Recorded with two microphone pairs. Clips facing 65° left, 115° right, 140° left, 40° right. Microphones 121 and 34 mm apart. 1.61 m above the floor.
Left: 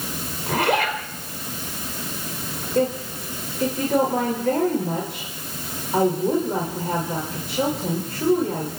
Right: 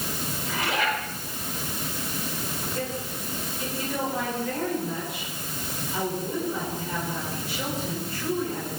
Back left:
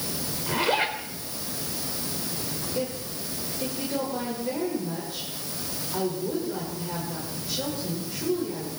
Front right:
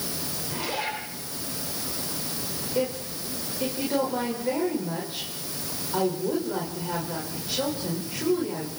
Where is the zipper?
95° left, 4.5 m.